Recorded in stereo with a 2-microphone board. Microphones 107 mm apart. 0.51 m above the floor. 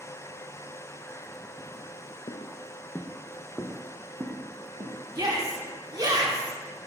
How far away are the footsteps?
About 1.0 m.